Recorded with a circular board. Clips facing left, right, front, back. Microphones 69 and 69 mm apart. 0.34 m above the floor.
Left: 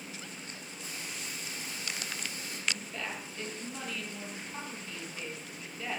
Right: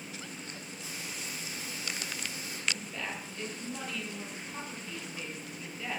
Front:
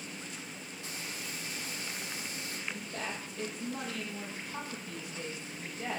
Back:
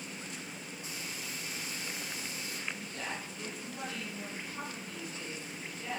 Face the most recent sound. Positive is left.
turn(degrees=-5)